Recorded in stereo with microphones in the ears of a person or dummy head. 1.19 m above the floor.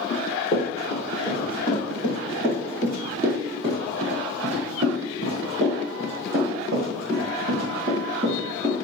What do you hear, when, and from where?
0.1 s running footsteps: 25° left (ahead or behind), 1.6 m; by 8.8 s 45° right (ahead or behind), 5 m